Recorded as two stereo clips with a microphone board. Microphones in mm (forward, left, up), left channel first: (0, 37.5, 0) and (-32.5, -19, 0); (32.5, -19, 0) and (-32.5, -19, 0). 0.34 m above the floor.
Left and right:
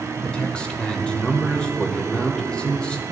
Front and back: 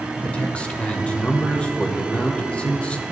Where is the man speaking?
25° left, 0.9 m.